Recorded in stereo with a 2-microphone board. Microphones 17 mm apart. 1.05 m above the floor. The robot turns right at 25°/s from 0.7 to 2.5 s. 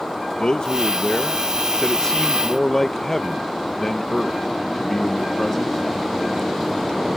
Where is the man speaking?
115° left; by 5.8 s 160° left.